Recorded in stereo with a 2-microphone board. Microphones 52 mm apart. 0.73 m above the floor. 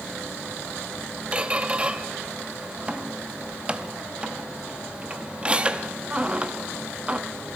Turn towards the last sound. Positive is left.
turn(degrees=-20)  # may be behind; listen again after turning